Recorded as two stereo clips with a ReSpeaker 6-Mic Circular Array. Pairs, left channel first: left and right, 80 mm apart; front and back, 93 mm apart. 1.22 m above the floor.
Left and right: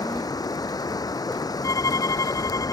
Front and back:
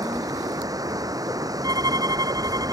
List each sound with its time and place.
0.0 s running water: 130° left
1.6 s a violin: 135° left